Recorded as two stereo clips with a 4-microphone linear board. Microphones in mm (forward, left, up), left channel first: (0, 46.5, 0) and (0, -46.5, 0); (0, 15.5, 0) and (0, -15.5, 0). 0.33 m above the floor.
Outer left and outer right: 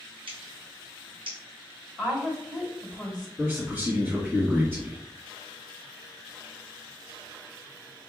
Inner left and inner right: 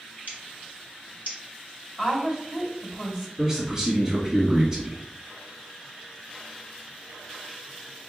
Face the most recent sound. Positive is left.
turn(degrees=-20)  # may be behind; listen again after turning